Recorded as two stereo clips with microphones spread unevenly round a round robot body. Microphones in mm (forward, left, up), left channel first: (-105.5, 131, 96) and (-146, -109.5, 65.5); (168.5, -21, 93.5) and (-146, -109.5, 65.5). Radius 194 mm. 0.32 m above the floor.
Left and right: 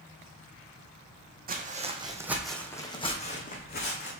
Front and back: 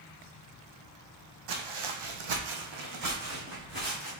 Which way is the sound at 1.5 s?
155° right.